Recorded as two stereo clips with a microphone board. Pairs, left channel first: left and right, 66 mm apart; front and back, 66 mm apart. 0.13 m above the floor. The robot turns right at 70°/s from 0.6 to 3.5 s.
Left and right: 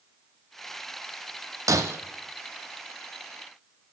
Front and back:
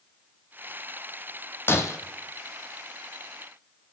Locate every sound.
1.7 s breaking glass: 55° right, 1.2 m; by 2.0 s 35° right, 1.2 m